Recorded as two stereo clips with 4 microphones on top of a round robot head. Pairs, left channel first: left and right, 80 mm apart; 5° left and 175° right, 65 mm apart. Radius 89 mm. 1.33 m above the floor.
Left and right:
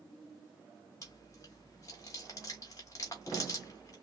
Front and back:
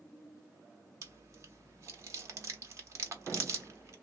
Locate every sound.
1.0 s chewing: 155° left, 0.8 m